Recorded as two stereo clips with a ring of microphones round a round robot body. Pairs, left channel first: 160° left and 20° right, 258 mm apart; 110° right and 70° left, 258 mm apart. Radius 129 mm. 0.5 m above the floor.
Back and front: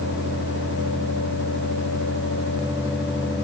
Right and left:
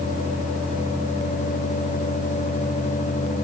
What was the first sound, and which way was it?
Only background noise.